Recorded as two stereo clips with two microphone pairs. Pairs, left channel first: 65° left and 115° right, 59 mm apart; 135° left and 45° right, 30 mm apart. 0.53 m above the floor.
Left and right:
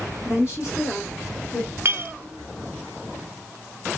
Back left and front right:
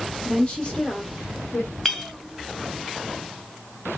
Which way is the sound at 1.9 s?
145° right.